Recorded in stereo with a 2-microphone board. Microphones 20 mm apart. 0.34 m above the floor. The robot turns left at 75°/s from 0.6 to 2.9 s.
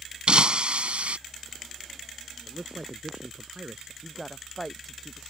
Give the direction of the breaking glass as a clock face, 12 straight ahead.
2 o'clock.